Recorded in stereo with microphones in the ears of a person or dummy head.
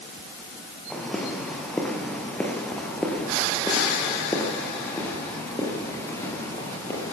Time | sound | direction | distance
0.9 | footsteps | 5° right (ahead or behind) | 5.5 m